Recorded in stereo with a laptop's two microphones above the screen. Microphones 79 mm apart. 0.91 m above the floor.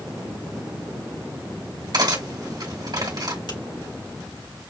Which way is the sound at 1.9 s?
55° right (ahead or behind).